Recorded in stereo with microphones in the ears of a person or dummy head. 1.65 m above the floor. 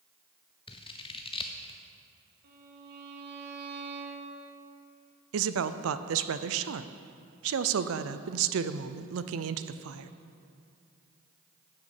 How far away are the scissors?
About 0.6 m.